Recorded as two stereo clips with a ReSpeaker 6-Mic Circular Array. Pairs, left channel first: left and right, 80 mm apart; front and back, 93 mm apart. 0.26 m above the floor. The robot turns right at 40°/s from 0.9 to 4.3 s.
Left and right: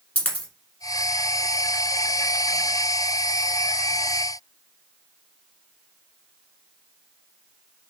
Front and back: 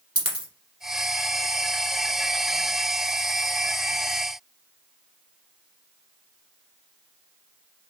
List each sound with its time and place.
0.1 s a dropped coin: 155° left, 1.4 m